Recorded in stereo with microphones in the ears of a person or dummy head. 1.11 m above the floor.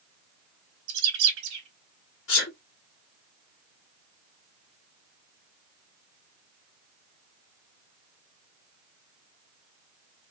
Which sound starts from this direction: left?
A sneeze, at 2.3 s.